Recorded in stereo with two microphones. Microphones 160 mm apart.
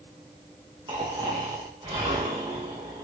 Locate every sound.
0.9 s snoring: 30° right (ahead or behind), 5.5 m